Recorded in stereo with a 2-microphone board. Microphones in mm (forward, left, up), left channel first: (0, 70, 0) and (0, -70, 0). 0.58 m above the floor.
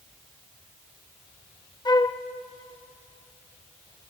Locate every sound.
1.9 s a flute: 30° left (ahead or behind), 0.7 m